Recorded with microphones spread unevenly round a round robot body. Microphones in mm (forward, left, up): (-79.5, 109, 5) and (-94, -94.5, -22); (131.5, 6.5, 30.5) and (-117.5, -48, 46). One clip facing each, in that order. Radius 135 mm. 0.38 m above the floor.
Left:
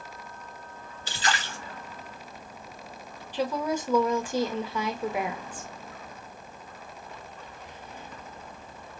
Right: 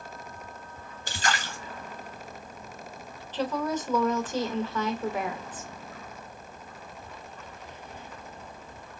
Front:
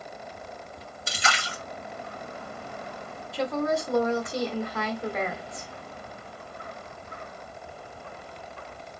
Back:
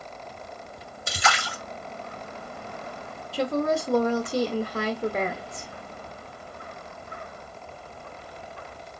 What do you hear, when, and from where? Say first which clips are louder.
1.1 s a splash: even, back 4 dB; 125° right, 2.5 m
3.3 s a woman speaking: left 1 dB, back 2 dB; 170° left, 0.8 m